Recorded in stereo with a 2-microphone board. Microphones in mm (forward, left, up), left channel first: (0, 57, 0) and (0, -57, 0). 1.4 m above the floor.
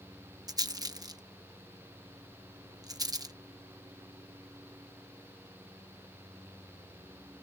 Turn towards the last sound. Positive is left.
turn(degrees=-35)  # may be behind; listen again after turning